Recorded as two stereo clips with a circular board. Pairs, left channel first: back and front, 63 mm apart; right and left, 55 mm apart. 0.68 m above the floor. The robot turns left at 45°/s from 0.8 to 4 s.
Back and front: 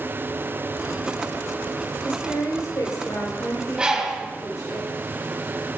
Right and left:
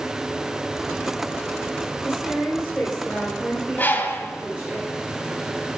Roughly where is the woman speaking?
Behind right.